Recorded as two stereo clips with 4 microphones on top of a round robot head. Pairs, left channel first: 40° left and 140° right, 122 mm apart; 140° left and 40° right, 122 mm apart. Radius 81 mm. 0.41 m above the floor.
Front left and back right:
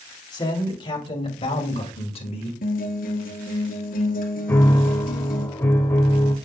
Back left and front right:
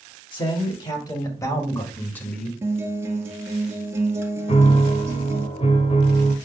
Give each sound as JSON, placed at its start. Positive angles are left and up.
{"t": 0.3, "sound": "a man speaking", "azimuth_deg": 95, "distance_m": 3.0}
{"t": 2.6, "sound": "a guitar", "azimuth_deg": 35, "distance_m": 1.8}
{"t": 4.5, "sound": "a piano", "azimuth_deg": 110, "distance_m": 1.3}